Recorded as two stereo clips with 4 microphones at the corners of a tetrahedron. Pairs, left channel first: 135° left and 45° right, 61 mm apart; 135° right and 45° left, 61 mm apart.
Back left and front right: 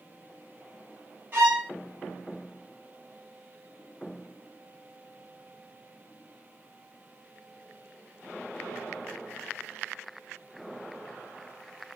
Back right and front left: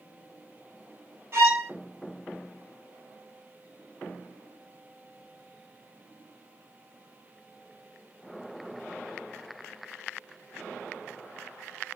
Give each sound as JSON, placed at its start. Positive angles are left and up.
{"t": 1.3, "sound": "a violin", "azimuth_deg": 5, "distance_m": 1.9}